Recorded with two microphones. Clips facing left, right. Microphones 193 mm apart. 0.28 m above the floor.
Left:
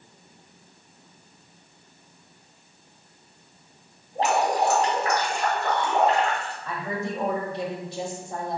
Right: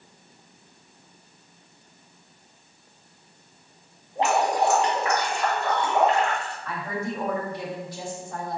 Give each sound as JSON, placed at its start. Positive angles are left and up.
{"t": 4.2, "sound": "dripping", "side_deg": 40, "distance_m": 1.8}
{"t": 6.7, "sound": "a woman speaking", "side_deg": 25, "distance_m": 1.3}